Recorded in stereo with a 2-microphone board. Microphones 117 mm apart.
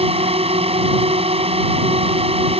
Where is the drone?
55° right (ahead or behind).